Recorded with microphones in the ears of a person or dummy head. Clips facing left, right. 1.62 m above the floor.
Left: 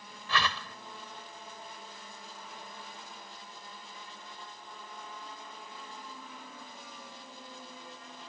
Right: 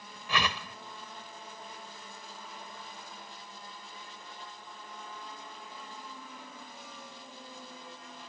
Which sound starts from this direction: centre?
A whoosh, at 0.3 s.